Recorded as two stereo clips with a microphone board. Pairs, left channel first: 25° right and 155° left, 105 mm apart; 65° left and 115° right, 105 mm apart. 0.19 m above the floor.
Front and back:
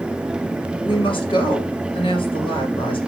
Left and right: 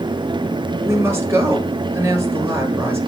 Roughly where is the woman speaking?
Ahead right.